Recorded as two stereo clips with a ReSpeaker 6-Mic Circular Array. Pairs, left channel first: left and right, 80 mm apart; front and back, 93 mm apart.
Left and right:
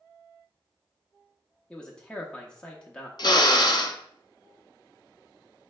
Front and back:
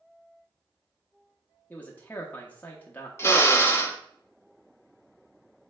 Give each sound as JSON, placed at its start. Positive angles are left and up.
{"t": 1.7, "sound": "a man speaking", "azimuth_deg": 30, "distance_m": 0.6}
{"t": 3.2, "sound": "a drill", "azimuth_deg": 60, "distance_m": 0.5}